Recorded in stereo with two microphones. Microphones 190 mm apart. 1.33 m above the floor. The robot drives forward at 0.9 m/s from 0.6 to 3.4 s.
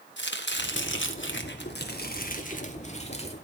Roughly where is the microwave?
No microwave in this recording.